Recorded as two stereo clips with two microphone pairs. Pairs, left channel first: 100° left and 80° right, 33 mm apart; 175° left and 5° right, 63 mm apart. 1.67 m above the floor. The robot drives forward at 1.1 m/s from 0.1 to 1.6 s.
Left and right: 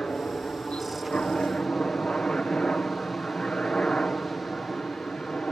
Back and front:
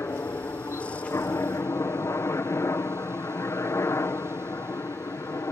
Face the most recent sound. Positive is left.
turn(degrees=155)